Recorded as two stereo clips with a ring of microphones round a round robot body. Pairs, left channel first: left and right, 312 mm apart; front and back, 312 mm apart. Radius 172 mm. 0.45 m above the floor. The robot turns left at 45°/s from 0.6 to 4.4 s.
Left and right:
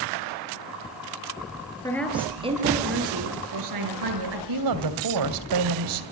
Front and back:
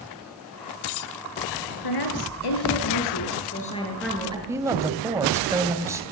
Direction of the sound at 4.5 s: 100° right.